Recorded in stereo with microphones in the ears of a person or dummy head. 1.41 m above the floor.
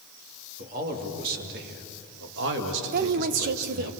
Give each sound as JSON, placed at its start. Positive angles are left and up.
{"t": 0.6, "sound": "a man speaking", "side_deg": -50, "distance_m": 3.0}
{"t": 2.9, "sound": "a woman speaking", "side_deg": -50, "distance_m": 1.0}